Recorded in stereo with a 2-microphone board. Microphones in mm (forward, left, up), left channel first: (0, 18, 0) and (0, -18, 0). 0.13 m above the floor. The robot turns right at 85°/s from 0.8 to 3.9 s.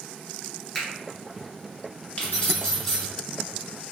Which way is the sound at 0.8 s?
5° left (ahead or behind).